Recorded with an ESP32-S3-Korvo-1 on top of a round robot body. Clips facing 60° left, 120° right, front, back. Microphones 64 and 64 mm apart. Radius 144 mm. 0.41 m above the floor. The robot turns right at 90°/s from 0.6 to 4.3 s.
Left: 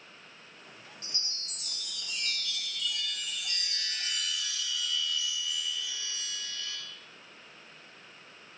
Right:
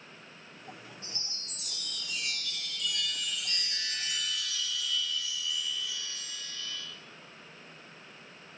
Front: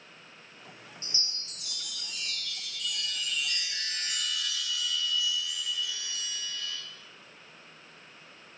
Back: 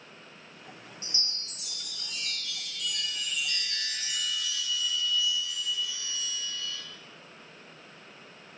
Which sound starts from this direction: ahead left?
A chime, at 1.0 s.